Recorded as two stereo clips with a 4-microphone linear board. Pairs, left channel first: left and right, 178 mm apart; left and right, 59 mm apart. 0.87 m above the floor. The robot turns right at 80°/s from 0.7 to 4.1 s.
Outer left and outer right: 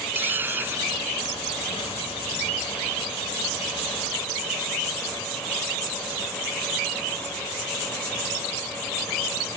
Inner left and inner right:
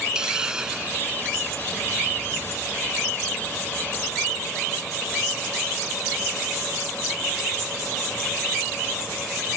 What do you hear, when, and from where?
0.1 s a hiss: 170° right; by 1.4 s 110° right